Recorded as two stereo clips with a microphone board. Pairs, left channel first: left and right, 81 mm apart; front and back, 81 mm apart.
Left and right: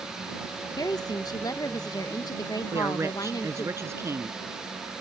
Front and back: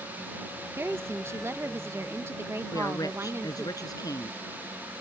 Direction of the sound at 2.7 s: 35° right.